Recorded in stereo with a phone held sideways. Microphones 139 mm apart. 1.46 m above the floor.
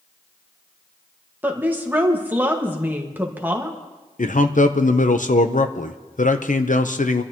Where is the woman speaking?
15° right (ahead or behind), 1.7 m.